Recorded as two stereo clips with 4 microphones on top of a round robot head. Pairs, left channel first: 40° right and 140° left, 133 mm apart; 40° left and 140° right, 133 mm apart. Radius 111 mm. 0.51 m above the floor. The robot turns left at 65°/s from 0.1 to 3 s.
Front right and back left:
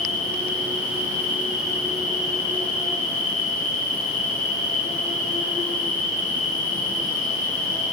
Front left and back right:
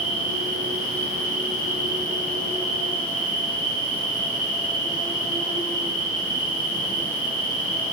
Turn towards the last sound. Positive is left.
turn(degrees=-15)